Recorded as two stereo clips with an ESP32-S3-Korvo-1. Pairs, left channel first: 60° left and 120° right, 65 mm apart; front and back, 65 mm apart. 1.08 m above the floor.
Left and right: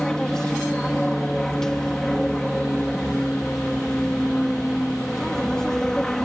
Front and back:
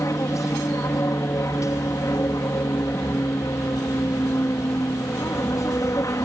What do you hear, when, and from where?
0.0 s an aircraft: 20° right